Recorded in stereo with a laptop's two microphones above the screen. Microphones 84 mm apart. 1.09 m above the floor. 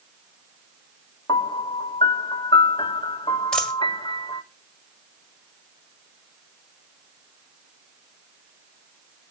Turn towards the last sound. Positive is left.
turn(degrees=10)  # may be behind; listen again after turning